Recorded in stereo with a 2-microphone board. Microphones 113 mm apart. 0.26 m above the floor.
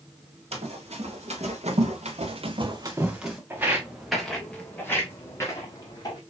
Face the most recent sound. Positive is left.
turn(degrees=35)  # may be behind; listen again after turning